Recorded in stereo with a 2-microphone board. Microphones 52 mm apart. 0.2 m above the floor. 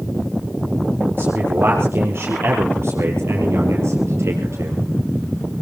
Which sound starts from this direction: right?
A man speaking, at 1.2 s.